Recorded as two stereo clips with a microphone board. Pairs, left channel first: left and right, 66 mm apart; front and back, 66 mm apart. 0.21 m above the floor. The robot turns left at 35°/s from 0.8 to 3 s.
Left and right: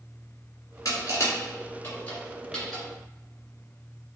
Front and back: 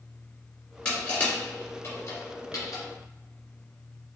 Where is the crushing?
70° left, 1.8 m; by 2.8 s straight ahead, 1.8 m.